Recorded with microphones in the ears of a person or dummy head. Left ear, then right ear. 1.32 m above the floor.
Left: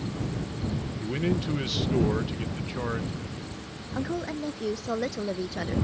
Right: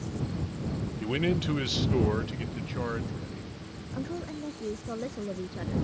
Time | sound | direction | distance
1.0 | a man speaking | 35° right (ahead or behind) | ?
3.9 | a woman speaking | 25° left (ahead or behind) | ?